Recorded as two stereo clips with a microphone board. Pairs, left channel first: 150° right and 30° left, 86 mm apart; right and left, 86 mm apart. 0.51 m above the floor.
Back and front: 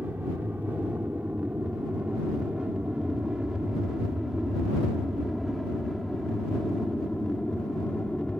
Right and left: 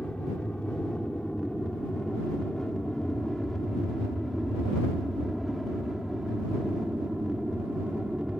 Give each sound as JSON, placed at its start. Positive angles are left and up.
{"t": 0.0, "sound": "an aircraft", "azimuth_deg": -20}